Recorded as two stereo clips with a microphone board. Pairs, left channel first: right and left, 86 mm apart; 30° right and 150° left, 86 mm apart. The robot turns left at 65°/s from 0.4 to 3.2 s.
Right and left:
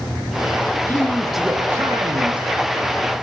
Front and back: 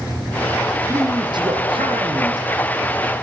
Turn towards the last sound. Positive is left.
turn(degrees=60)